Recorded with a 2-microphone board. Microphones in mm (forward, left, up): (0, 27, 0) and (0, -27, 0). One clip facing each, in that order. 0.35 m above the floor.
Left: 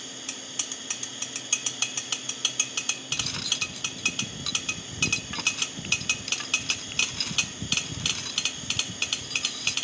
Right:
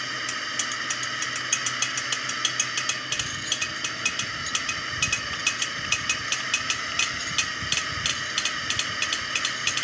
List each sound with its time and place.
0.0 s a drone: 60° right (ahead or behind)
3.1 s cutlery clinking: 75° left (ahead or behind)